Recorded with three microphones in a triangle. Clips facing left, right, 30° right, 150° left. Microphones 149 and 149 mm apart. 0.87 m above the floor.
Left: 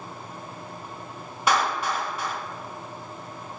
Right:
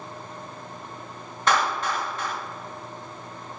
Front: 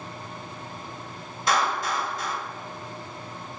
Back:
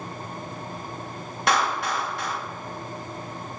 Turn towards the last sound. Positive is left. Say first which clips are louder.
# even, back 1 dB
turn(degrees=170)